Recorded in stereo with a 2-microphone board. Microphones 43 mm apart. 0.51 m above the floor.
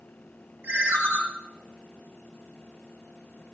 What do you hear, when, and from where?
0.6 s a ringtone: 90° right, 1.4 m